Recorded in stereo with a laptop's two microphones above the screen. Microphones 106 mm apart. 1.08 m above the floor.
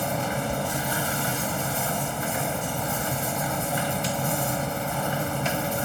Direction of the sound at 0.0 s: Centre (ahead or behind).